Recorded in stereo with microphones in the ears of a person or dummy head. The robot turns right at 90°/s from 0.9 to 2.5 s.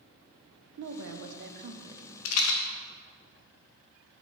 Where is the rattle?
80° left, 0.8 m; by 2.6 s 75° left (ahead or behind), 0.8 m.